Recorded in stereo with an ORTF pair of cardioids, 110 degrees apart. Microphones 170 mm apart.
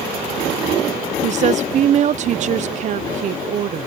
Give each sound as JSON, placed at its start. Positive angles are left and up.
{"t": 1.2, "sound": "a woman speaking", "azimuth_deg": -45}